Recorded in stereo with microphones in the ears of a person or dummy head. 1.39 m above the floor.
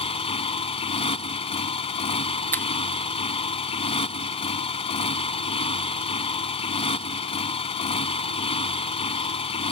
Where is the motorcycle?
30° left (ahead or behind).